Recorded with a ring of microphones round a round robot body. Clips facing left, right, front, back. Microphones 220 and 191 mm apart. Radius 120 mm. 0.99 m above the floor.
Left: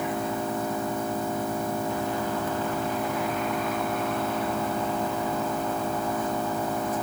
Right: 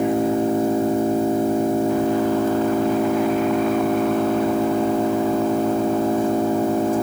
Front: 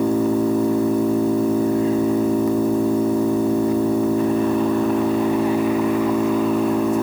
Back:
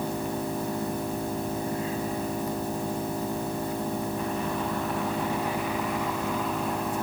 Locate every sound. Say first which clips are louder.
0.0 s an engine running: right 11 dB, front 13 dB; 25° right